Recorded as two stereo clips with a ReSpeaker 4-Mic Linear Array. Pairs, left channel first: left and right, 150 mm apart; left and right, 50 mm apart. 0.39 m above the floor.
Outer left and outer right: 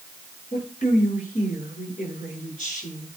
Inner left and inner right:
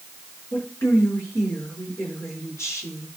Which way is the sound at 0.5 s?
55° left (ahead or behind).